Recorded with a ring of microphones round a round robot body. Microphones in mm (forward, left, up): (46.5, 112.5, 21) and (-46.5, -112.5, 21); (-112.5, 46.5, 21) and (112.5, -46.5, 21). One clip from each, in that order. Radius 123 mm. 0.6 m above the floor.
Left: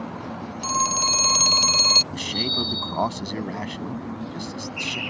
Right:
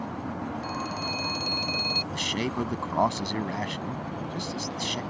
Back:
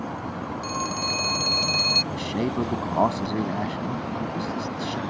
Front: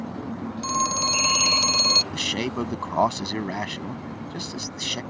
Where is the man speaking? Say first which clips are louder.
Left 5 dB, front 1 dB; 30° right.